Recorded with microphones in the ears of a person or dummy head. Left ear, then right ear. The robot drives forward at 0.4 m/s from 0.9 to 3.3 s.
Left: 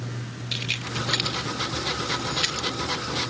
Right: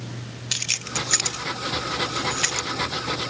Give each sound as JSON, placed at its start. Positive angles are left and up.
{"t": 0.5, "sound": "keys jangling", "side_deg": -35}